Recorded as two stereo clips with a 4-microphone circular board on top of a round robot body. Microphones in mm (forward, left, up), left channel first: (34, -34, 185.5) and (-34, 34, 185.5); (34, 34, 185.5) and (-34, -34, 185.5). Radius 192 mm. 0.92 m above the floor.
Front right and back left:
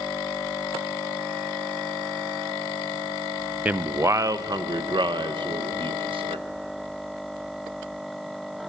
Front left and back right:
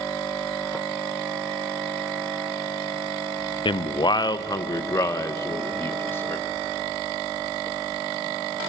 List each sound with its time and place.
3.6 s a man speaking: 65° left, 0.8 m; by 6.5 s 110° left, 1.9 m